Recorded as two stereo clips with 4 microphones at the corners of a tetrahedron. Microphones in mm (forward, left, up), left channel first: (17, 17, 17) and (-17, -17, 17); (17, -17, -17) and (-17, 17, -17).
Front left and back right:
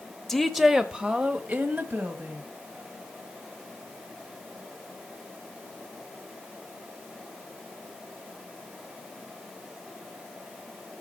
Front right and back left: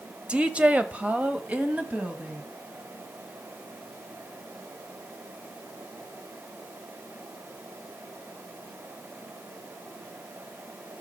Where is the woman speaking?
115° left, 1.0 m; by 2.4 s 170° right, 1.8 m.